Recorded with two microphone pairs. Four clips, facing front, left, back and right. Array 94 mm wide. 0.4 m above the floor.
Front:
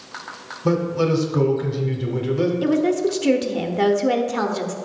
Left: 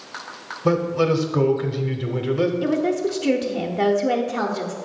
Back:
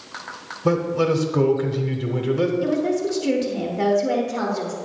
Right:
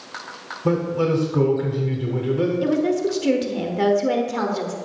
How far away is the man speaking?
About 0.9 m.